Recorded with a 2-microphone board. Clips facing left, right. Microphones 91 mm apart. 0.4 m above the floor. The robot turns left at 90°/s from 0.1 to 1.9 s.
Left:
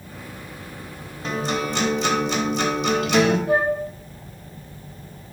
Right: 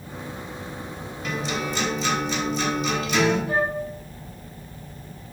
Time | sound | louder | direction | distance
1.2 | a guitar | left 3 dB | 150° left | 0.8 m
3.5 | a flute | left 4 dB | 70° left (ahead or behind) | 1.8 m